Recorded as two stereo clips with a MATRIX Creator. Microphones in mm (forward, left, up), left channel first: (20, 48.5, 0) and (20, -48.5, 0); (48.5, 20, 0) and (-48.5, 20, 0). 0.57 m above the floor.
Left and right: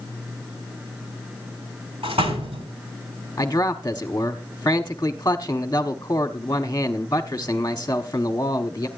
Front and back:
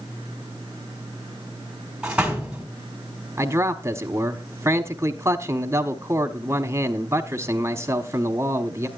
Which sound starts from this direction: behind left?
A man speaking, at 3.4 s.